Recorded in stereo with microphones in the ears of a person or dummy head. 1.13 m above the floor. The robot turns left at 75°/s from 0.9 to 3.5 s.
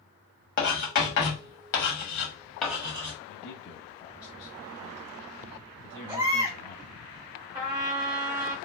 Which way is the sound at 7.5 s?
20° right (ahead or behind).